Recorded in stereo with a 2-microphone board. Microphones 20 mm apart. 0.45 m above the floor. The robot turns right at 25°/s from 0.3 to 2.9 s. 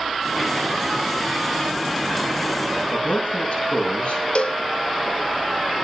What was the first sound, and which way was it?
A man speaking, 70° left (ahead or behind).